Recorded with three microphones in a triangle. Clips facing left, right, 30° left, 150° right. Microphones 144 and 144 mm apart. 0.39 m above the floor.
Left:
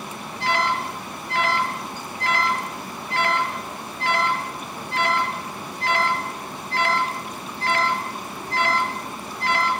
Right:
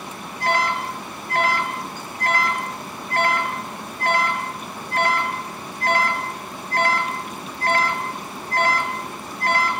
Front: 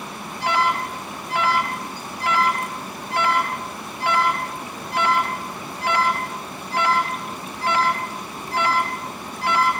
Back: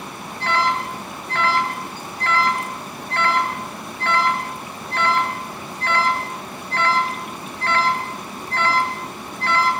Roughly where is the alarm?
Ahead right.